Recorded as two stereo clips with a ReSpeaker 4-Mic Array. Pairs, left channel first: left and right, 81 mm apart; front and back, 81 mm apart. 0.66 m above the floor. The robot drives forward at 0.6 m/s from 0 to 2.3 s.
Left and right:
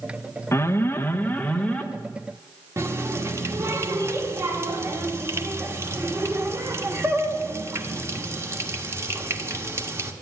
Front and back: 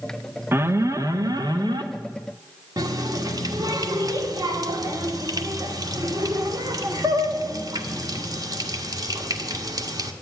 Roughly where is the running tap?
Behind right.